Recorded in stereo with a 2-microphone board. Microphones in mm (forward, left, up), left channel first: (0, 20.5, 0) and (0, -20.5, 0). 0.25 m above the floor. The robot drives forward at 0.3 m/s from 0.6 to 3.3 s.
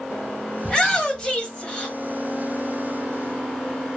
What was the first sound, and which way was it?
A shout, 20° left (ahead or behind).